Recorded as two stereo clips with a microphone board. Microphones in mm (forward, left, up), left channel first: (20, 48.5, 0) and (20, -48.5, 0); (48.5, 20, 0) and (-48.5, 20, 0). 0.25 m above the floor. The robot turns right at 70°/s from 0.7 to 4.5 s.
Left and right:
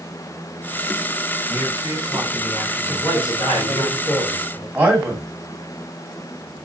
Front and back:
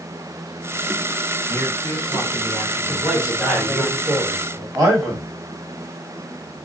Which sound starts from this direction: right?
A man speaking, at 1.5 s.